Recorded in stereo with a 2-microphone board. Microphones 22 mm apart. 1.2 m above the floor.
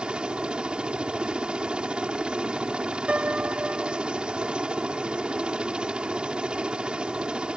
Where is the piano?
70° right (ahead or behind).